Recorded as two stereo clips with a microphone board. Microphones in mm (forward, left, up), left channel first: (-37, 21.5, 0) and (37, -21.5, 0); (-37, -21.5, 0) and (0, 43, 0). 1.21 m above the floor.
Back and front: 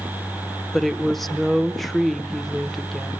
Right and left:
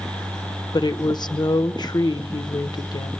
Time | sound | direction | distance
0.7 | a woman speaking | 120° right | 0.7 m